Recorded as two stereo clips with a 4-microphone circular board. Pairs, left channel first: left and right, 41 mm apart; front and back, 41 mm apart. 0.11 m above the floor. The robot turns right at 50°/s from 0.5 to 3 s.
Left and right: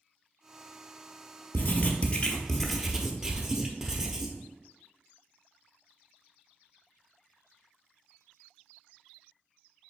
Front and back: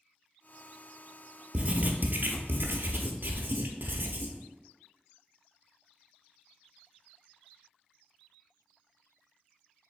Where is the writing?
125° left, 0.7 m; by 4.4 s 165° right, 0.7 m.